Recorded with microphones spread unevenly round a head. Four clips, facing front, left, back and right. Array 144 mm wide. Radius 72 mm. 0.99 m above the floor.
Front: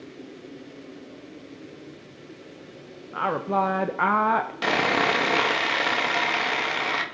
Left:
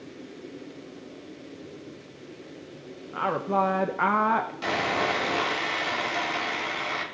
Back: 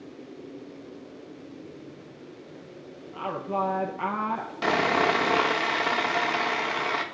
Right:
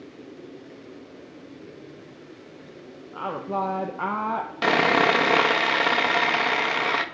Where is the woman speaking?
15° left, 0.9 m.